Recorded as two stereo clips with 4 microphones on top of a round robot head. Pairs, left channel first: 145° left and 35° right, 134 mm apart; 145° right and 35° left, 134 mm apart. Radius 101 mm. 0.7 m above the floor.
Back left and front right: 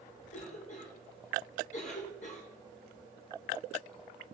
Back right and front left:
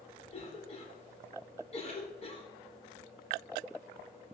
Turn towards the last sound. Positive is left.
turn(degrees=175)